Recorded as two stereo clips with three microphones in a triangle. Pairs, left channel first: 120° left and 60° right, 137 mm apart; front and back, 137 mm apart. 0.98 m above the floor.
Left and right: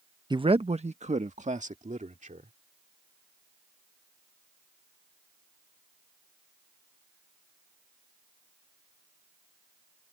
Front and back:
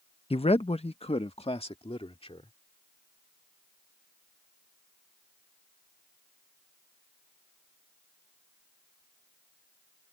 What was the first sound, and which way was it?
A man speaking, 20° right.